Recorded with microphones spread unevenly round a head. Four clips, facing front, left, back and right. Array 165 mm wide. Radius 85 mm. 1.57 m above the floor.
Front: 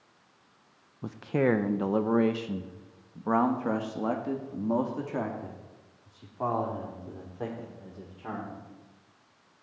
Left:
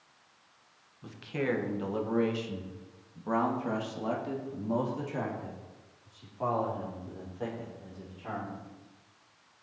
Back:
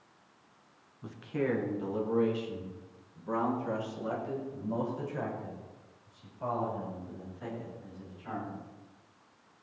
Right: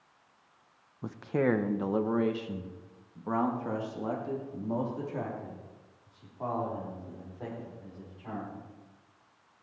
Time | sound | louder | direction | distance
1.0 | a man speaking | right 4 dB, front 6 dB | 40° right | 1.0 m